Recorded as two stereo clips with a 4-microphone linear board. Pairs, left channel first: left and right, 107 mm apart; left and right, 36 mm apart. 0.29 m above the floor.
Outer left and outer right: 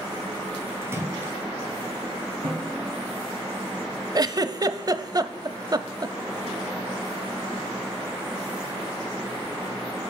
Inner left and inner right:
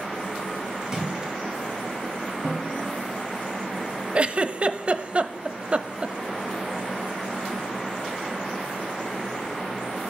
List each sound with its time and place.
0.8 s a splash: 25° right (ahead or behind), 1.6 m
2.4 s a snare drum: 75° right (ahead or behind), 7 m
4.2 s a giggle: 40° right (ahead or behind), 0.6 m